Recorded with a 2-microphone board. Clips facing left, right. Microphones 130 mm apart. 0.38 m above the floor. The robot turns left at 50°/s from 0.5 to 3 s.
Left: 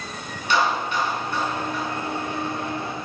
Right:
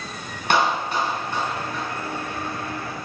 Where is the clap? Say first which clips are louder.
Right 1 dB; 60° right (ahead or behind), 3 m; by 1.8 s 5° left (ahead or behind), 3 m.